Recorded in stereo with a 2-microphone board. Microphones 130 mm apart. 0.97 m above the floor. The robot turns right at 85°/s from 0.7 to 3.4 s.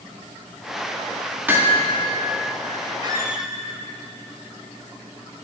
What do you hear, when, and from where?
1.5 s hammering: 15° right (ahead or behind), 1.9 m; by 1.8 s 40° right (ahead or behind), 1.9 m
3.0 s a squeak: 40° right, 1.2 m; by 3.5 s 5° right, 1.2 m